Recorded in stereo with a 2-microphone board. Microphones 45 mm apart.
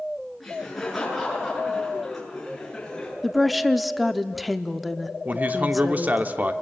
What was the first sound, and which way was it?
Laughter, centre (ahead or behind).